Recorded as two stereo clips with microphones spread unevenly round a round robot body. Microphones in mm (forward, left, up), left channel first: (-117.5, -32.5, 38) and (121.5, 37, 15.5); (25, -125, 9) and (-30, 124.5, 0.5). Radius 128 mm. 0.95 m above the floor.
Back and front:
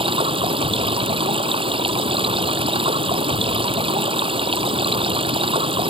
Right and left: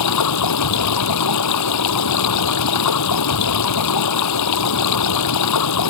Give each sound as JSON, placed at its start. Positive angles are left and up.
{"t": 0.0, "sound": "running water", "azimuth_deg": -55}